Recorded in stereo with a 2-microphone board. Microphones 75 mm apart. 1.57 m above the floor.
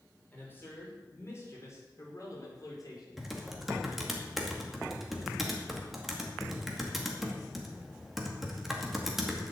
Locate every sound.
0.3 s a man speaking: 25° left (ahead or behind), 5.5 m; by 3.3 s 60° left (ahead or behind), 4.5 m
3.2 s typing on a keyboard: 5° right (ahead or behind), 2 m